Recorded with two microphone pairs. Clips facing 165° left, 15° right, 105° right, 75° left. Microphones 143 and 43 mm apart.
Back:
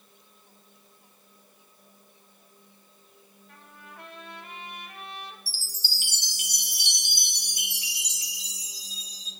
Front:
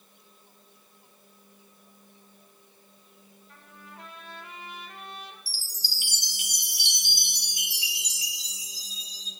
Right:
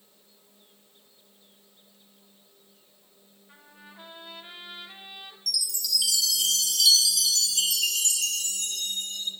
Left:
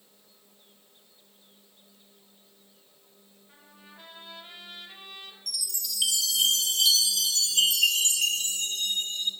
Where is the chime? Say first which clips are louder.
Back 2 dB, right 7 dB; 120° left, 2 m.